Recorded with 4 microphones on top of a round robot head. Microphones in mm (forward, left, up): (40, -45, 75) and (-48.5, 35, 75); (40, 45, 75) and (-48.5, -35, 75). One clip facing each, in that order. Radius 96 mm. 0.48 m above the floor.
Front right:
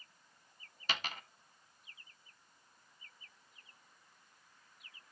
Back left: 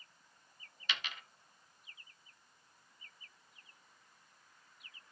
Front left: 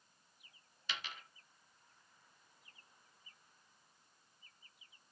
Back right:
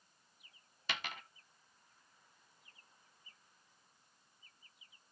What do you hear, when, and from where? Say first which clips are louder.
0.9 s a dropped coin: front right 3 dB, back right 4 dB; 95° right, 0.7 m